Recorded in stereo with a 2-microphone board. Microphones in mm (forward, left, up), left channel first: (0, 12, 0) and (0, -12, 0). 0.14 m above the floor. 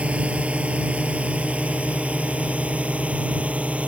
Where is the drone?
60° right (ahead or behind); by 3.9 s 65° right (ahead or behind).